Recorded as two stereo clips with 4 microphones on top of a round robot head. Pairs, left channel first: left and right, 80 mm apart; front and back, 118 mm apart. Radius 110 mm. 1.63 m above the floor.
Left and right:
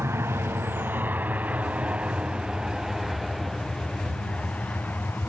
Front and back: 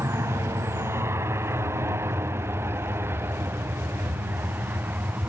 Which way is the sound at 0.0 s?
125° right.